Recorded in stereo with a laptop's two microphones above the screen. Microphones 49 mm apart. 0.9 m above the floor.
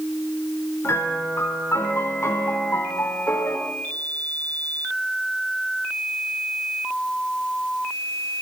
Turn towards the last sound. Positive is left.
turn(degrees=65)  # may be behind; listen again after turning